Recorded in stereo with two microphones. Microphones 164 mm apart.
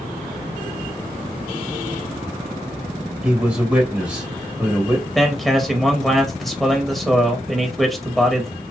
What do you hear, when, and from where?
3.2 s a man speaking: 10° right (ahead or behind), 1.4 m
5.2 s a man speaking: centre (ahead or behind), 0.9 m